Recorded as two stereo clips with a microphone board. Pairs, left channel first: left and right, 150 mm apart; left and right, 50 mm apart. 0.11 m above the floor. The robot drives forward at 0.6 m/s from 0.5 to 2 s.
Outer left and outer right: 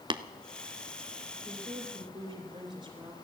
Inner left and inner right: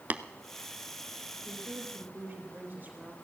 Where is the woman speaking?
25° right (ahead or behind), 3 m; by 3.2 s 30° right (ahead or behind), 3 m.